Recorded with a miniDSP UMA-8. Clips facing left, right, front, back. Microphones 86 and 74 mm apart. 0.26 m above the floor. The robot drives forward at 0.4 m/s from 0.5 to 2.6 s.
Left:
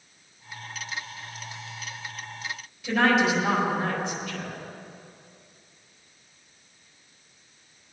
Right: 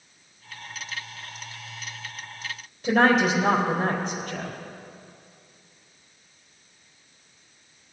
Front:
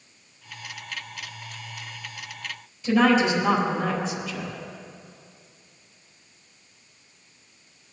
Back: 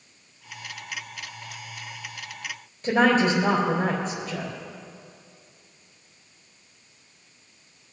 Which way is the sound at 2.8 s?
140° right.